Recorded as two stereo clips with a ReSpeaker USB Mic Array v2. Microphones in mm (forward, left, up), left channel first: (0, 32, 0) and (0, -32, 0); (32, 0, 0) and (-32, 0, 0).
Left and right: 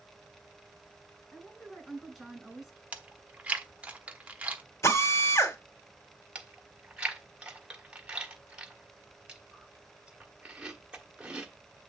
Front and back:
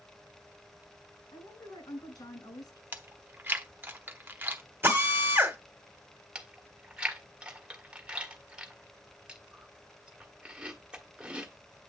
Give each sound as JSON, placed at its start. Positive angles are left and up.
{"t": 1.3, "sound": "a woman speaking", "azimuth_deg": 0, "distance_m": 5.5}
{"t": 2.9, "sound": "chewing", "azimuth_deg": -145, "distance_m": 0.9}
{"t": 4.8, "sound": "a drill", "azimuth_deg": 125, "distance_m": 2.0}
{"t": 6.3, "sound": "chewing", "azimuth_deg": -135, "distance_m": 1.4}